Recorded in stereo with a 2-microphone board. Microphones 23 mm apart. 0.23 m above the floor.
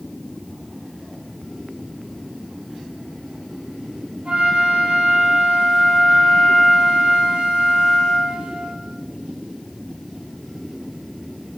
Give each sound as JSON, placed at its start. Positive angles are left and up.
{"t": 4.2, "sound": "a flute", "side_deg": -65, "distance_m": 4.5}